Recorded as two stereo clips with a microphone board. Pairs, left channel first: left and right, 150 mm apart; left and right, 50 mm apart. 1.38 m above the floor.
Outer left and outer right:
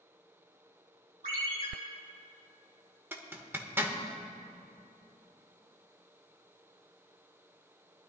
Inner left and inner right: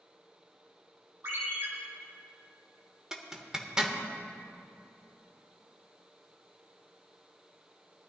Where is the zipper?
15° right (ahead or behind), 1.1 m.